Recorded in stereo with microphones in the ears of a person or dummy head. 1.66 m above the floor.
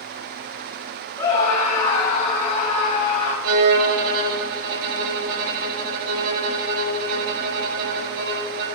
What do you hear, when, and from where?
1.2 s a scream: 15° left (ahead or behind), 8.5 m; by 3.3 s 25° left (ahead or behind), 9.5 m
3.4 s a violin: 50° right (ahead or behind), 1.7 m